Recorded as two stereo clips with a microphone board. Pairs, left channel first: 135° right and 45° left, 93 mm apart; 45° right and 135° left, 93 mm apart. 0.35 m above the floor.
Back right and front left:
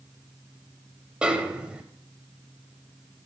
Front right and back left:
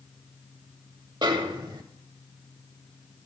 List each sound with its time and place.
1.2 s a snare drum: 125° left, 0.8 m